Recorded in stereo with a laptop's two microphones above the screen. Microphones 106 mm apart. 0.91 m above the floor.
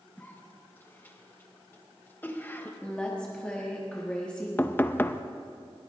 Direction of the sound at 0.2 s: 15° left (ahead or behind).